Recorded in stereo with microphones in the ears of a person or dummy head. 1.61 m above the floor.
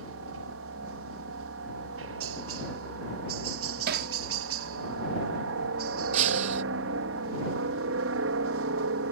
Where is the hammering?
55° right (ahead or behind).